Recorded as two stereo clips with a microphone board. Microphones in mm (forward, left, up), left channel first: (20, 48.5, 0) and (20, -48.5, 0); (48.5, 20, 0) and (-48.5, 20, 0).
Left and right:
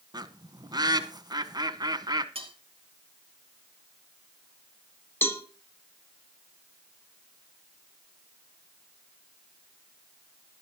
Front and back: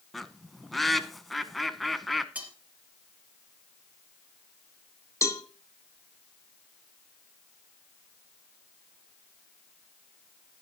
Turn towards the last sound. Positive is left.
turn(degrees=40)